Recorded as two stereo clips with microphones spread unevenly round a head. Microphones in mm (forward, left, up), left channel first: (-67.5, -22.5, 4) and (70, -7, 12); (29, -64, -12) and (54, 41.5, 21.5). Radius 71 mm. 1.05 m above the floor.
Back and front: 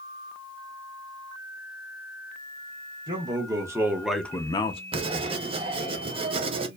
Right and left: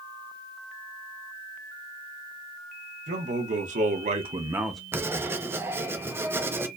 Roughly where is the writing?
Ahead.